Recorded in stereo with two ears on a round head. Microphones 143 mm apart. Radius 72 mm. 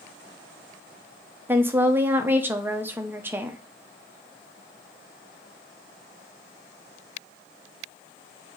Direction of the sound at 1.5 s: 15° right (ahead or behind).